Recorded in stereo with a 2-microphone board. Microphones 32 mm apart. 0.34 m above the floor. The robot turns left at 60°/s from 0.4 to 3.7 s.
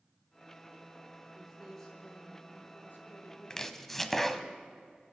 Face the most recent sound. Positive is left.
turn(degrees=10)  # may be behind; listen again after turning